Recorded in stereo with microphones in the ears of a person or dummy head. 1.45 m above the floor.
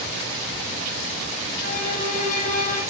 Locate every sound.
1.6 s a violin: 45° left (ahead or behind), 10 m